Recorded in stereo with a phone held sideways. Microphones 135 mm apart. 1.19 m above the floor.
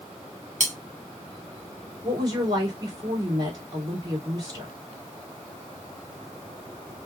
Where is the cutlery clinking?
60° right (ahead or behind), 1.2 m.